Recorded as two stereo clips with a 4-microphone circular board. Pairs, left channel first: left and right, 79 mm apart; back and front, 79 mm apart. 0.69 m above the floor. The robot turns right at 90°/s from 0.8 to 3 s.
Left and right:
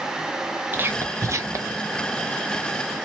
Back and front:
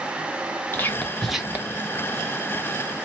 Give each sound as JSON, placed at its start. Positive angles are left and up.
{"t": 0.7, "sound": "whispering", "azimuth_deg": -135, "distance_m": 0.8}